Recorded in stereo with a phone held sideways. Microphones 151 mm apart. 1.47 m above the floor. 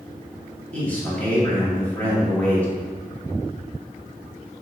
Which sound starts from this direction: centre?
A man speaking, at 0.7 s.